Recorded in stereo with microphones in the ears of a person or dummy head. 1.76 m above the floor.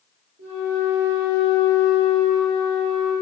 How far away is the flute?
About 1.1 m.